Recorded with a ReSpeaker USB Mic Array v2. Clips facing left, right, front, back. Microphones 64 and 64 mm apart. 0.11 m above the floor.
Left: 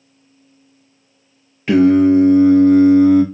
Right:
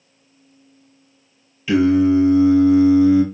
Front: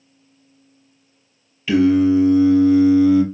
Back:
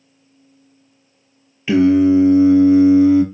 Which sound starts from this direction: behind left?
Singing, at 1.7 s.